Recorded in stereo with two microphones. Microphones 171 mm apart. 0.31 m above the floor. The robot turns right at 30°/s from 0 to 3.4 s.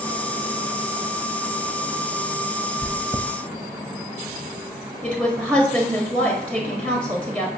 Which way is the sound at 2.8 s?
10° left (ahead or behind).